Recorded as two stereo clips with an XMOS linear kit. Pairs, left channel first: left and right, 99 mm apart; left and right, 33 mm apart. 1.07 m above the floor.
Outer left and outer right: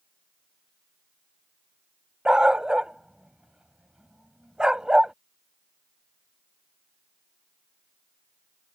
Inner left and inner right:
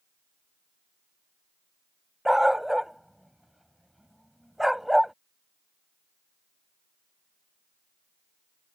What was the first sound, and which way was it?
A dog barking, 10° right (ahead or behind).